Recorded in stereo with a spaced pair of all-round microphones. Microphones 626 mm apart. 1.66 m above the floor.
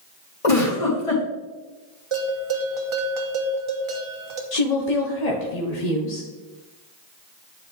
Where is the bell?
50° right (ahead or behind), 1.0 m.